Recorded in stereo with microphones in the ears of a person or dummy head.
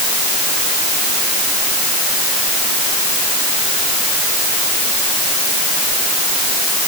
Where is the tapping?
No tapping in this recording.